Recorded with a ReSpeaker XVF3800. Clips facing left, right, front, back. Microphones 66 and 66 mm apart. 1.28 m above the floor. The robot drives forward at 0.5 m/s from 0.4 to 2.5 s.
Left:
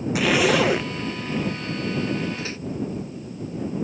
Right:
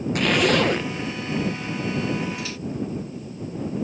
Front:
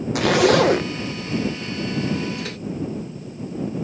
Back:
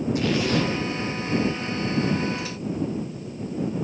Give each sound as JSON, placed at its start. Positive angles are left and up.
{"t": 0.1, "sound": "a zipper", "azimuth_deg": 5}
{"t": 2.4, "sound": "a microwave", "azimuth_deg": 30}